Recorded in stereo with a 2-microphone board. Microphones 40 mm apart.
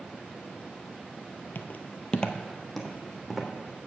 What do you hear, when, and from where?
1.6 s footsteps: 55° left (ahead or behind), 0.7 m; by 3.5 s 10° right (ahead or behind), 1.7 m